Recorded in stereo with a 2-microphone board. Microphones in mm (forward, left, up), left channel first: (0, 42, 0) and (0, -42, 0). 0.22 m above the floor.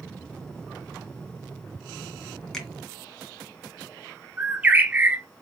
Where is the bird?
20° right (ahead or behind), 0.6 m.